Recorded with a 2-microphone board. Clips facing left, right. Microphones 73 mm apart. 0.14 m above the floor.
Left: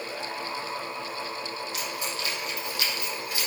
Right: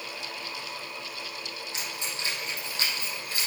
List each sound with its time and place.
1.7 s keys jangling: 30° right (ahead or behind), 4 m; by 3.5 s 40° right (ahead or behind), 4.5 m